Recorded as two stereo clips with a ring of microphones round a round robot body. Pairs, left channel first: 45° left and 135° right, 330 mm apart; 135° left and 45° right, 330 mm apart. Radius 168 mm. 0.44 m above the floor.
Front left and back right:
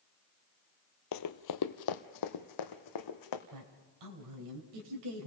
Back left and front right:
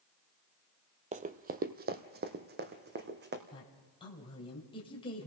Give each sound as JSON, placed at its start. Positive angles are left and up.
{"t": 1.1, "sound": "running footsteps", "azimuth_deg": 20, "distance_m": 0.6}
{"t": 3.5, "sound": "a woman speaking", "azimuth_deg": -150, "distance_m": 2.5}